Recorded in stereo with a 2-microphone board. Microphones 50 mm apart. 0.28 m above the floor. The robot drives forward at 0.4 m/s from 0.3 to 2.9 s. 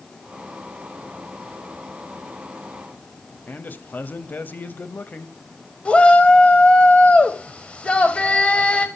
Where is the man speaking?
40° left (ahead or behind), 1.0 m.